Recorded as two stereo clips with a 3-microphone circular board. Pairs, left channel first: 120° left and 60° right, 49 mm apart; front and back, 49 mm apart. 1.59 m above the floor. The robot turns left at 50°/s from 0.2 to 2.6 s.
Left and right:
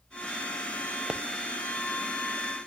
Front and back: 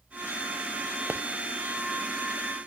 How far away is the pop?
About 0.6 m.